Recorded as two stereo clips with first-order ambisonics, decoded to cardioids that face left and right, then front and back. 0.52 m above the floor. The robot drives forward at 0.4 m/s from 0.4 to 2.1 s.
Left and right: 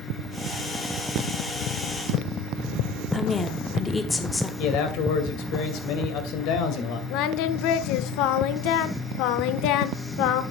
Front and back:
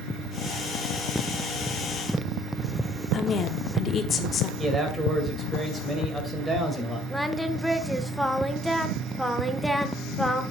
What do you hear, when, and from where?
3.1 s a woman speaking: 15° left, 0.9 m
4.6 s a man speaking: 105° left, 2.5 m
7.1 s singing: 90° left, 0.6 m